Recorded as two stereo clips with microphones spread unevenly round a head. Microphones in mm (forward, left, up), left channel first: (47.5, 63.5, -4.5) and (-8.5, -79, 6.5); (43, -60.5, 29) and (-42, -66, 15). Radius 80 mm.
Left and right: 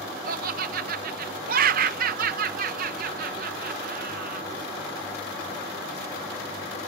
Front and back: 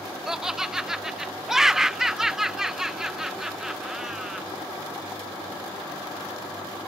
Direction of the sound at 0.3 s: 100° right.